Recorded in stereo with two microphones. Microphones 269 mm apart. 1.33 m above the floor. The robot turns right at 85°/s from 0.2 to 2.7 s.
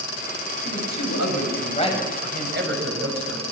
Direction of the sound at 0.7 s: 55° left.